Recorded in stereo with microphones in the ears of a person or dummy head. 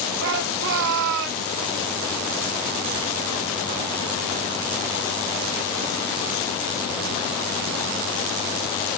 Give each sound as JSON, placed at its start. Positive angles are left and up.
{"t": 0.2, "sound": "a shout", "side_deg": -60, "distance_m": 3.5}